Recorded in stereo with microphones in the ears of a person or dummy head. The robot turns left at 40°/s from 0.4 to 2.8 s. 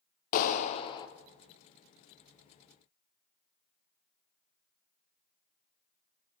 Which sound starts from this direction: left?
A clap, at 0.3 s.